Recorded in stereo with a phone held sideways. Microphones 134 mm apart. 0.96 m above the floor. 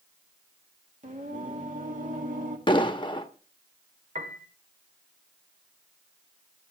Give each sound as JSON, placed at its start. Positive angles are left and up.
{"t": 1.0, "sound": "singing", "side_deg": -65, "distance_m": 2.0}
{"t": 2.7, "sound": "an explosion", "side_deg": 35, "distance_m": 0.8}
{"t": 4.2, "sound": "a piano", "side_deg": -60, "distance_m": 1.1}